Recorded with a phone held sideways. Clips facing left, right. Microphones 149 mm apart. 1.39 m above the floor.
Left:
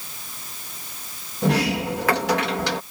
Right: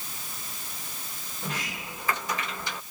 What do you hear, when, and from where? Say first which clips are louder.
1.4 s a sliding door: left 16 dB; 75° left (ahead or behind)